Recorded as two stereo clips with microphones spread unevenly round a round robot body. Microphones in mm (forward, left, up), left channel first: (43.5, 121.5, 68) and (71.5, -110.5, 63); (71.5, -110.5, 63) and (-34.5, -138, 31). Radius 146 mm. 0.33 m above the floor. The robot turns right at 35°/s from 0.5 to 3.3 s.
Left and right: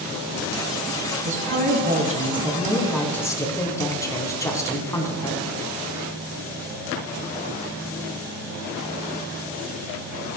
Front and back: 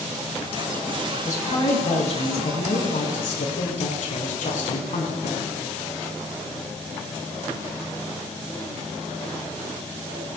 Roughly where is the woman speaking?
Ahead right.